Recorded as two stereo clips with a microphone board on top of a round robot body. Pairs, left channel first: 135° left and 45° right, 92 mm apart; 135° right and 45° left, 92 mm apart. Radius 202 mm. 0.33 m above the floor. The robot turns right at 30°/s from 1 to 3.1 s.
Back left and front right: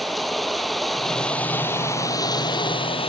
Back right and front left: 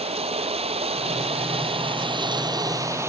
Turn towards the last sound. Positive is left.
turn(degrees=110)